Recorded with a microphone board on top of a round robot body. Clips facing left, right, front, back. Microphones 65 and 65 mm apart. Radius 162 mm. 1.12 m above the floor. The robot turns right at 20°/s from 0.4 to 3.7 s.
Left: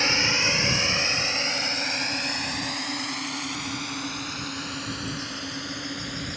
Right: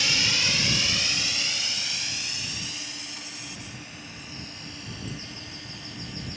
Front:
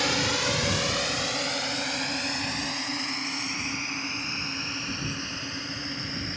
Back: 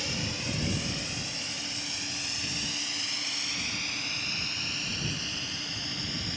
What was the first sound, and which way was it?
A drone, 30° left.